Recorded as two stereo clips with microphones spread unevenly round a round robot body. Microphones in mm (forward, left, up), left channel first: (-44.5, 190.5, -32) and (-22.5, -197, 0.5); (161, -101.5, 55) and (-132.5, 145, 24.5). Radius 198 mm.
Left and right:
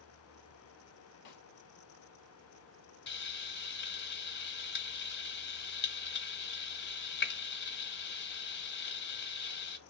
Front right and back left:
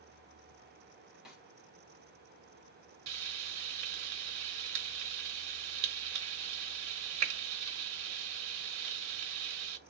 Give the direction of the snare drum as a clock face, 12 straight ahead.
10 o'clock.